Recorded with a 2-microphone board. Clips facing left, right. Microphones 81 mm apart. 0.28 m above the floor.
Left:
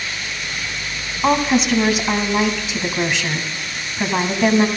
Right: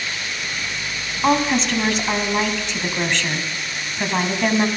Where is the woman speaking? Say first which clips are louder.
Left 2 dB; 5° left (ahead or behind), 1.5 m.